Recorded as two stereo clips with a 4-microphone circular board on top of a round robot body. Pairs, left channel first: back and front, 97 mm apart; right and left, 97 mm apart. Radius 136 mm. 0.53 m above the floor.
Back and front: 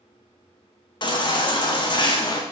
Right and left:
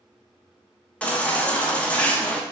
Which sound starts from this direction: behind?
A baby crying, at 1.0 s.